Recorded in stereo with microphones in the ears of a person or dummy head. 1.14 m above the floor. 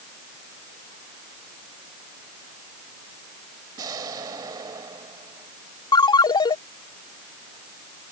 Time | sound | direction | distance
3.8 | an explosion | 25° right (ahead or behind) | ?
5.9 | a ringtone | 20° left (ahead or behind) | ?